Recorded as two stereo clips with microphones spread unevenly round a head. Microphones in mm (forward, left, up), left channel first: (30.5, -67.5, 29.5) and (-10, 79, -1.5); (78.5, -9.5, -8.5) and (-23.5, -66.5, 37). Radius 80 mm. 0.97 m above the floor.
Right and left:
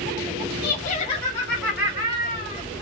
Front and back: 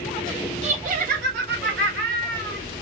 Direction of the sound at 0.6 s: 110° right.